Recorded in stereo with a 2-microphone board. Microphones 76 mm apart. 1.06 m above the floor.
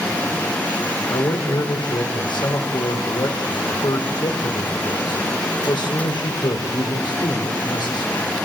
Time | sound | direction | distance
1.1 | a man speaking | 70° left (ahead or behind) | 4 m